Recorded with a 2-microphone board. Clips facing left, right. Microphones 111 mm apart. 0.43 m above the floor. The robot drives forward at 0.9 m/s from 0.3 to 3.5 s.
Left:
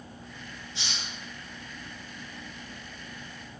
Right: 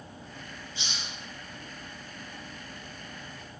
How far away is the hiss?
About 5 m.